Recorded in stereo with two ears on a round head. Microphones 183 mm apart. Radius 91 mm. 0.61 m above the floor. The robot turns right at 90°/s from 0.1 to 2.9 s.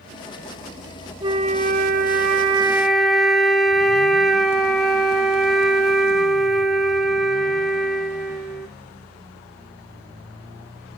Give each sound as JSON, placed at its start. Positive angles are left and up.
{"t": 1.2, "sound": "a flute", "azimuth_deg": -150, "distance_m": 1.0}